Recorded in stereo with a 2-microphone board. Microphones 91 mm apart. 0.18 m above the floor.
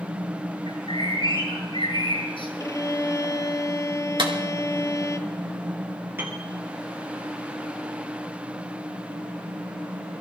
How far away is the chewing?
I don't hear chewing.